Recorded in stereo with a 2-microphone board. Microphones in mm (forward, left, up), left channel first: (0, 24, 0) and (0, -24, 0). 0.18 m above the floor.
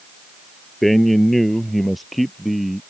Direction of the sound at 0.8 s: 5° left (ahead or behind).